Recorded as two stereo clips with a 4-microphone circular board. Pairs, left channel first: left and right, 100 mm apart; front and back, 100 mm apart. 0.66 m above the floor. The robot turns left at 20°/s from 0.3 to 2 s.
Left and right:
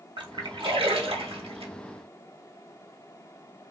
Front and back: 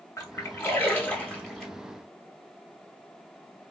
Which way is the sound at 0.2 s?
60° right.